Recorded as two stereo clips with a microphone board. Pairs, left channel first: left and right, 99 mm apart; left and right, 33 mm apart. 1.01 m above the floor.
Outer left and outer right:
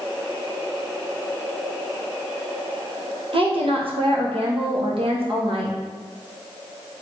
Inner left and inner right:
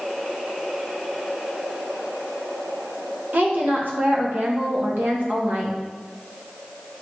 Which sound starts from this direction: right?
A woman speaking, at 3.3 s.